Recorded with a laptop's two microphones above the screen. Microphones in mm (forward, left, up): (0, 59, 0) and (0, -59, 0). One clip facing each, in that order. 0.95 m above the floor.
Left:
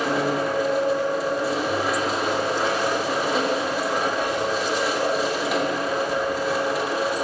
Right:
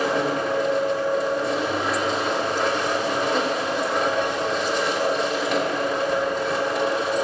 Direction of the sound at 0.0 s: 5° left (ahead or behind).